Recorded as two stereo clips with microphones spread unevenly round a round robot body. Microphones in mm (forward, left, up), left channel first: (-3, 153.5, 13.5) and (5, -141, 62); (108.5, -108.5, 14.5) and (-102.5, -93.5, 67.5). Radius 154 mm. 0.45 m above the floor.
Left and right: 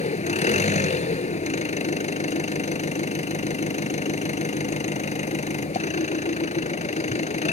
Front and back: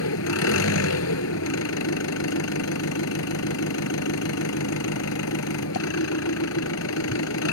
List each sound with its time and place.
0.0 s an engine running: 25° left